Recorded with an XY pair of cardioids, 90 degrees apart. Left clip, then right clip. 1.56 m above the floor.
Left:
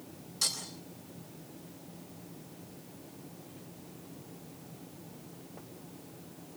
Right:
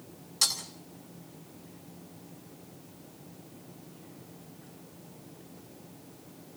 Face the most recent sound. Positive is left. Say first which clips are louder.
# right 5 dB
turn(degrees=-60)